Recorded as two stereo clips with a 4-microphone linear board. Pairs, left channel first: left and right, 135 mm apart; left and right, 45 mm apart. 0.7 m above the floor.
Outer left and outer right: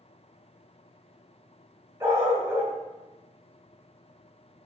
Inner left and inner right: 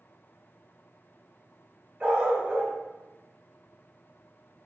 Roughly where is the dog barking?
Centre.